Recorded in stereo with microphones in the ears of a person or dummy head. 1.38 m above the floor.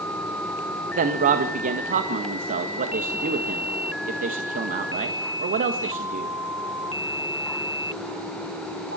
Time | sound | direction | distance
1.0 | a man speaking | 40° right (ahead or behind) | 1.6 m